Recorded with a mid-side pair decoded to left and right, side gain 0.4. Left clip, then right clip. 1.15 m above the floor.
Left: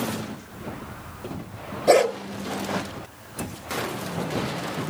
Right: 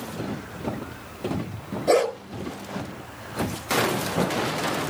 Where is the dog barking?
25° left, 6.5 m.